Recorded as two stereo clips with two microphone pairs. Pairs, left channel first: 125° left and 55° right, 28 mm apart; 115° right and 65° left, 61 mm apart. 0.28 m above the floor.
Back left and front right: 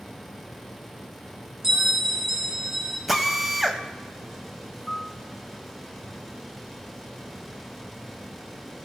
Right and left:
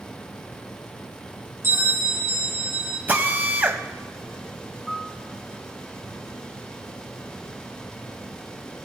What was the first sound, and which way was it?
A bell, 20° left.